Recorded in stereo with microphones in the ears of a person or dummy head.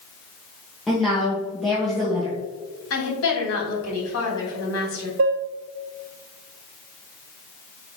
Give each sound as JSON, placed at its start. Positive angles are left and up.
{"t": 0.9, "sound": "a woman speaking", "side_deg": 5, "distance_m": 1.6}
{"t": 2.9, "sound": "a woman speaking", "side_deg": 80, "distance_m": 3.0}
{"t": 5.2, "sound": "dishes clattering", "side_deg": -45, "distance_m": 0.6}